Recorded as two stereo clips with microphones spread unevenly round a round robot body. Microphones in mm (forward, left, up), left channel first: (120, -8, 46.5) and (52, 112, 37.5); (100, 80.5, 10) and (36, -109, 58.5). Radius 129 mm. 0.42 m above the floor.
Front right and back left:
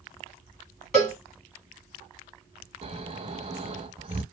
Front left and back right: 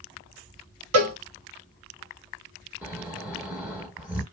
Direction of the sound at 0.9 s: 145° right.